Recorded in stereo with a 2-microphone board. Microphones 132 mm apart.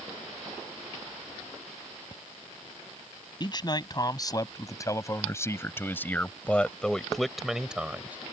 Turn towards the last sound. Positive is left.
turn(degrees=-10)  # may be behind; listen again after turning